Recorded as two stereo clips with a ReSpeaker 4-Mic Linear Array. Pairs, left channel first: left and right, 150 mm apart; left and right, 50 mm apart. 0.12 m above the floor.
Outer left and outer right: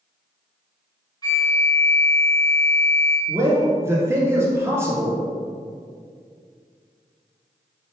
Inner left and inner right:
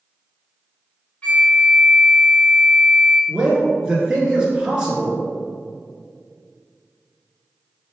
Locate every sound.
1.2 s a flute: 25° left (ahead or behind), 0.9 m
3.3 s a man speaking: 15° right (ahead or behind), 1.3 m